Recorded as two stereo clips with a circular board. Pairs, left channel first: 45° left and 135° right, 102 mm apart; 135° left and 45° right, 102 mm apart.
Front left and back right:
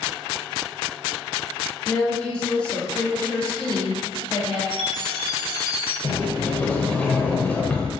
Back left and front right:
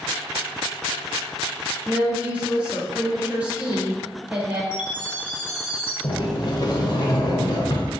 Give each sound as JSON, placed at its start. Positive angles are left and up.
{"t": 1.9, "sound": "a woman speaking", "azimuth_deg": -10, "distance_m": 0.9}
{"t": 4.7, "sound": "a chime", "azimuth_deg": -120, "distance_m": 1.2}
{"t": 6.0, "sound": "a sliding door", "azimuth_deg": 115, "distance_m": 0.6}